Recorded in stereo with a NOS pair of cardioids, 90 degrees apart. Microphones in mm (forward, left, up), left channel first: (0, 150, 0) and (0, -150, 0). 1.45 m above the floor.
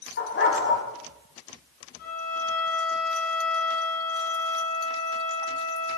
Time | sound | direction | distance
0.2 | a dog barking | 45° left | 4 m
2.0 | a violin | 70° left | 3.5 m